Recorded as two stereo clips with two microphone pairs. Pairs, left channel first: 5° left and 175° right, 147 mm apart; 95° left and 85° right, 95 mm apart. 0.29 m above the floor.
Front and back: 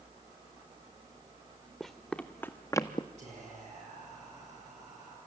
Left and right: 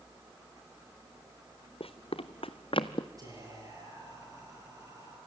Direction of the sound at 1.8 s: 100° left.